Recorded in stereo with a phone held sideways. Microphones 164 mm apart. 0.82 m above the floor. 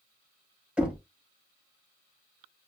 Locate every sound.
0.8 s knocking: 5° right (ahead or behind), 0.7 m